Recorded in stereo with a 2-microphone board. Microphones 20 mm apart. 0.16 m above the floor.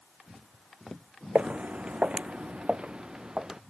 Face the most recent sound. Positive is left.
turn(degrees=-30)  # may be behind; listen again after turning